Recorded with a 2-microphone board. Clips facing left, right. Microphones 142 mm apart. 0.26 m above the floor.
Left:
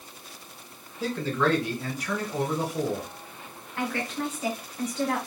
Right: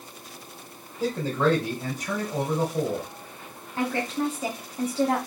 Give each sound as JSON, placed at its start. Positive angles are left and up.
{"t": 1.0, "sound": "a man speaking", "side_deg": -40, "distance_m": 3.0}
{"t": 3.8, "sound": "a woman speaking", "side_deg": -30, "distance_m": 1.5}